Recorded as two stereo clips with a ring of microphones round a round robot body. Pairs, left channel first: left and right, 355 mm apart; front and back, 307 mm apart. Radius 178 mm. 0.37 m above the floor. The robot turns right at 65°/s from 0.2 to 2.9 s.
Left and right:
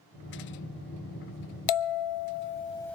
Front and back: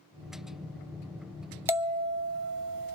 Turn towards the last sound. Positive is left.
turn(degrees=175)